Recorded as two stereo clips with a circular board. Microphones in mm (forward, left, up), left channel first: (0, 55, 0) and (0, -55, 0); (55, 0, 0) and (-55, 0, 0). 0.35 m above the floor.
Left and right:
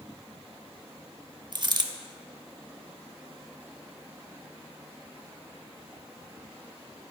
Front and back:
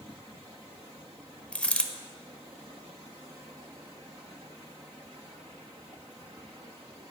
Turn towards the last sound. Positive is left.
turn(degrees=-75)